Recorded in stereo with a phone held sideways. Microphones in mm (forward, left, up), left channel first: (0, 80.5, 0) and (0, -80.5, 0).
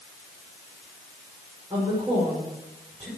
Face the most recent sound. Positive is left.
turn(degrees=-30)  # may be behind; listen again after turning